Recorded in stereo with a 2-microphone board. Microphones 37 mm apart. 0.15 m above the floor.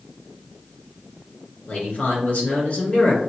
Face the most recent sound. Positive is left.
turn(degrees=35)  # may be behind; listen again after turning